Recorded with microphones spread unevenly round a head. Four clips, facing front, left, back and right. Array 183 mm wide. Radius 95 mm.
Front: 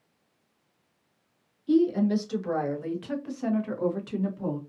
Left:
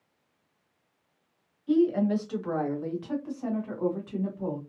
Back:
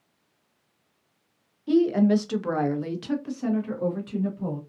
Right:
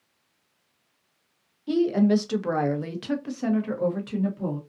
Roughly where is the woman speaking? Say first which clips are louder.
Right 2 dB, back 2 dB; behind right.